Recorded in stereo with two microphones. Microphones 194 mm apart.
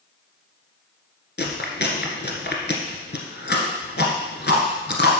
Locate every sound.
1.4 s chewing: 60° left (ahead or behind), 1.5 m